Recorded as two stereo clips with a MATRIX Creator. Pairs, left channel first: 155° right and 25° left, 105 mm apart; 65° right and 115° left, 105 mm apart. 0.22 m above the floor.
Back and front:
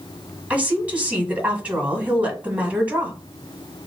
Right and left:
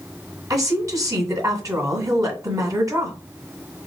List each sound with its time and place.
0.5 s a woman speaking: 90° left, 1.4 m